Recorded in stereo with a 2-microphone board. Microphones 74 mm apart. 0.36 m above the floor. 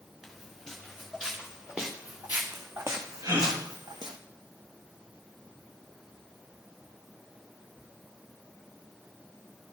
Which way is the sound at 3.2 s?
65° right (ahead or behind).